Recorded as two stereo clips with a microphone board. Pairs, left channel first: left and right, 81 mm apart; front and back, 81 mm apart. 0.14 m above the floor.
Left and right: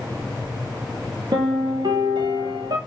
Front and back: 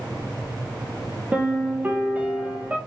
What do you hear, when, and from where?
1.3 s a piano: 110° right, 1.0 m